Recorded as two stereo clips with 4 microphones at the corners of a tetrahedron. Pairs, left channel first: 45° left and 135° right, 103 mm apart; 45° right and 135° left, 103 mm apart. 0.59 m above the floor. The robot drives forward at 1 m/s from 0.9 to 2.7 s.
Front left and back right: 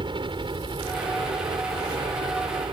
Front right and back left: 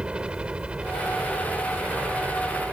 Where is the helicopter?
145° right; by 2.7 s 155° right.